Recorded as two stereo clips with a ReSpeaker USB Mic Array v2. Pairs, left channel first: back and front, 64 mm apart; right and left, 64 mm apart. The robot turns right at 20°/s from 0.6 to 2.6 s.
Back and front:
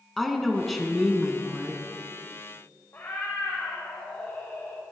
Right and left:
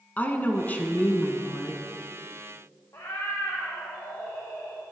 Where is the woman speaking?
95° right, 1.1 m; by 1.8 s 70° right, 1.1 m.